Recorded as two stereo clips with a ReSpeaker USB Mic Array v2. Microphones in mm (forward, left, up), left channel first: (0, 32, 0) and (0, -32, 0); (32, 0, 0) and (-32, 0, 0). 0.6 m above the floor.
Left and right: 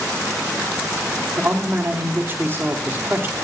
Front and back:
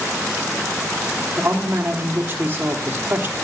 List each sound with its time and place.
1.4 s a man speaking: 135° right, 0.9 m